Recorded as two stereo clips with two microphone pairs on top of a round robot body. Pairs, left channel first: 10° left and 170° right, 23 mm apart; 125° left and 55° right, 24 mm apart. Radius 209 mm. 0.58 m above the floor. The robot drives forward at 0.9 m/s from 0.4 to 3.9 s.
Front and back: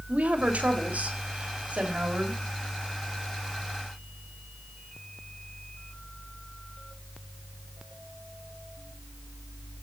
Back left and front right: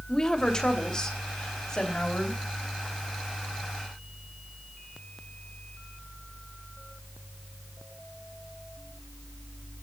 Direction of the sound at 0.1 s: 175° right.